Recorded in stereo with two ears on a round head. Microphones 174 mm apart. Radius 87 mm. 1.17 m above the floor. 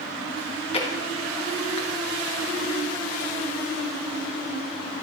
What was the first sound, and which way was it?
Chewing, 30° left (ahead or behind).